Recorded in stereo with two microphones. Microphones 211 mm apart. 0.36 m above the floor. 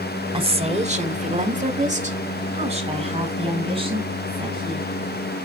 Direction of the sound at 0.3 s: 25° right (ahead or behind).